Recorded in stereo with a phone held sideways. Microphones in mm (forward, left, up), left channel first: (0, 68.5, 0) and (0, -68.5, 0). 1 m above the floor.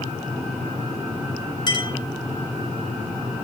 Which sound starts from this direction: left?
A clink, at 1.7 s.